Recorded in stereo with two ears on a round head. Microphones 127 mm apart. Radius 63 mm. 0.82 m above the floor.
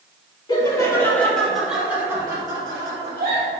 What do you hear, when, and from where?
0.5 s laughter: 30° left (ahead or behind), 1.9 m; by 3.5 s 40° right (ahead or behind), 3 m